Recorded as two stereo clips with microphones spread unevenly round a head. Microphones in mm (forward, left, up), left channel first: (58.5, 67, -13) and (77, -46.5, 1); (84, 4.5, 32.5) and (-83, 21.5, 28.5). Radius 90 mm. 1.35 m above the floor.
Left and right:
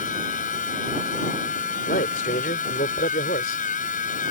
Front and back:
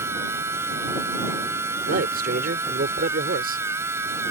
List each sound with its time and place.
0.0 s a machine running: 100° left
1.9 s a man speaking: 135° left